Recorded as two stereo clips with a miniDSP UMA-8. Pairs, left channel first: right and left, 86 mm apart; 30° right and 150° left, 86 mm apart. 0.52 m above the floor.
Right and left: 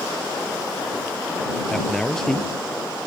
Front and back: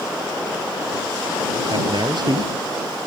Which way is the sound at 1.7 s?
175° right.